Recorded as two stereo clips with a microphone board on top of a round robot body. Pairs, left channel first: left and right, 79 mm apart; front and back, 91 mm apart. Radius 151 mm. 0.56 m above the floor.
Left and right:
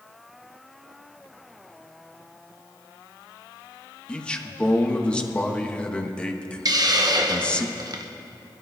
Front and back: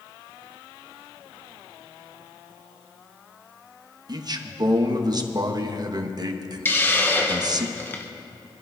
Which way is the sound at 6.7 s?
65° right.